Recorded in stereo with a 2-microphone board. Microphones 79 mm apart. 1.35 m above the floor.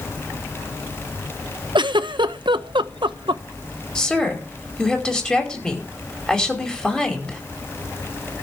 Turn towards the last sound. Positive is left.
turn(degrees=10)  # may be behind; listen again after turning